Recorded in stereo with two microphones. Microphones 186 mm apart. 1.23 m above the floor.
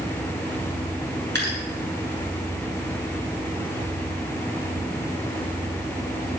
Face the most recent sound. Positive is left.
turn(degrees=-75)  # may be behind; listen again after turning